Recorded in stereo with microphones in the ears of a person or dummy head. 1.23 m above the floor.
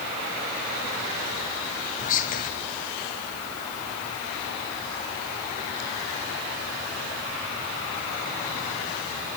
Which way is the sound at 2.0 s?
30° left (ahead or behind).